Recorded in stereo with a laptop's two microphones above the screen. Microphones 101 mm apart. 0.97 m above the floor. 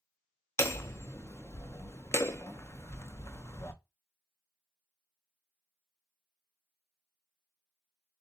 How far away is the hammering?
About 0.6 m.